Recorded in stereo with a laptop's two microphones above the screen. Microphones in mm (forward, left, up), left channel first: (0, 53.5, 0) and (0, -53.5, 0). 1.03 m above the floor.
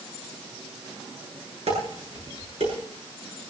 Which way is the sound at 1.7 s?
85° right.